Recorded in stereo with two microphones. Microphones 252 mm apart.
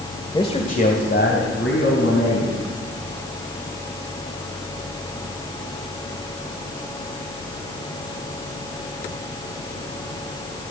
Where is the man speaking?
15° left (ahead or behind), 1.2 m; by 2.6 s 60° left (ahead or behind), 3.5 m.